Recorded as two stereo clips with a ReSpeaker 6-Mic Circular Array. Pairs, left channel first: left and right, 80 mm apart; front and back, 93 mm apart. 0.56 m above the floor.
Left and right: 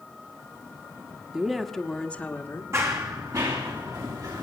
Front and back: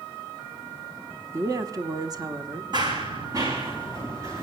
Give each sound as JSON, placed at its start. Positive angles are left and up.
{"t": 1.3, "sound": "a woman speaking", "azimuth_deg": -160, "distance_m": 1.1}
{"t": 2.7, "sound": "running footsteps", "azimuth_deg": -140, "distance_m": 2.0}